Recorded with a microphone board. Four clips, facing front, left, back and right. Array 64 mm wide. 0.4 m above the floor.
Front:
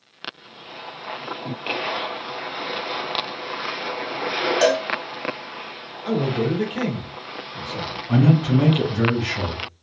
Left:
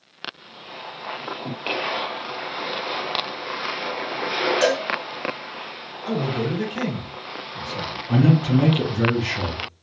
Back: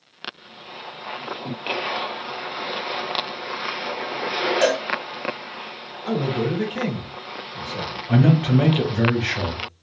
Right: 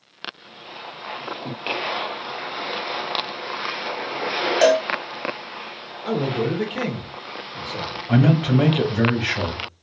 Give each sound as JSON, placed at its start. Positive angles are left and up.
{"t": 4.6, "sound": "a cowbell", "azimuth_deg": -70, "distance_m": 1.2}
{"t": 6.0, "sound": "a man speaking", "azimuth_deg": -75, "distance_m": 0.9}
{"t": 8.1, "sound": "a man speaking", "azimuth_deg": -120, "distance_m": 1.4}